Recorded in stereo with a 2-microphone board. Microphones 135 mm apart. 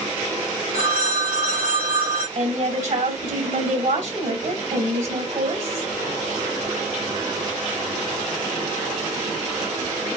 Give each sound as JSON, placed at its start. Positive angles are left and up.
{"t": 0.7, "sound": "a phone ringing", "side_deg": -75, "distance_m": 1.9}
{"t": 2.4, "sound": "a woman speaking", "side_deg": -65, "distance_m": 2.5}